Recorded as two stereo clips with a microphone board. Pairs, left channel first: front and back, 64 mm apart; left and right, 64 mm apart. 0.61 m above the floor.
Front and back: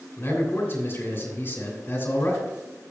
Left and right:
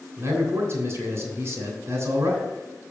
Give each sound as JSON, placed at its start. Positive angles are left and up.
{"t": 0.2, "sound": "a man speaking", "azimuth_deg": -50, "distance_m": 3.0}